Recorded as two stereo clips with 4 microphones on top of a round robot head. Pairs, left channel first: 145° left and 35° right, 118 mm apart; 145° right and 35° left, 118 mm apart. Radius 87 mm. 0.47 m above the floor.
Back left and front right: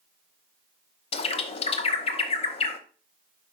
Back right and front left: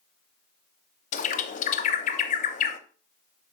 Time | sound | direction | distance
1.1 | a bird | 170° right | 0.8 m